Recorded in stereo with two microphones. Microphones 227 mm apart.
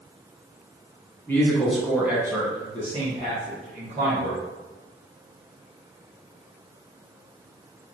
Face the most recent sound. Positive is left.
turn(degrees=-45)  # may be behind; listen again after turning